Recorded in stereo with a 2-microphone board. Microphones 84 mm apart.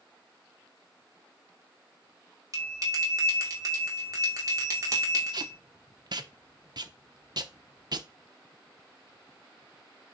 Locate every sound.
2.5 s a bell: 40° right (ahead or behind), 2.5 m
5.3 s tape being pulled: 55° right (ahead or behind), 0.8 m